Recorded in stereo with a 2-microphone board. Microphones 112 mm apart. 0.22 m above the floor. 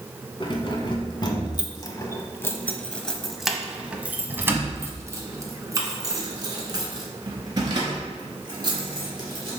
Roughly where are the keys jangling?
Left.